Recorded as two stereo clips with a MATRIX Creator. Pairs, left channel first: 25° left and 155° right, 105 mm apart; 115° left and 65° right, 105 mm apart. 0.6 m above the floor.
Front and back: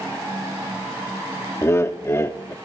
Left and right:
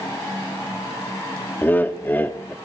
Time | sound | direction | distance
1.6 | laughter | 60° left | 0.6 m